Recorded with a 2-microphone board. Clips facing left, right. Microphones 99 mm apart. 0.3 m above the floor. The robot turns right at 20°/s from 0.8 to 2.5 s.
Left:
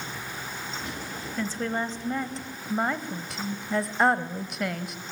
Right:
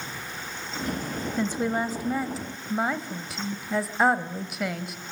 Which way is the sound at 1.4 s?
15° right (ahead or behind).